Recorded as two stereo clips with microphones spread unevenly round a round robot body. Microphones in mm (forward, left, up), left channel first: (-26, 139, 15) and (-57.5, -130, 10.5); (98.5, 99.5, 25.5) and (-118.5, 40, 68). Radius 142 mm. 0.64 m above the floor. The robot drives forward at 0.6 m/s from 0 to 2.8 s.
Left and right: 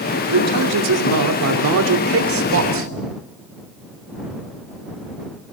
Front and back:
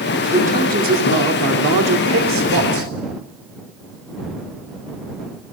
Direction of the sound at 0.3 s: 100° right.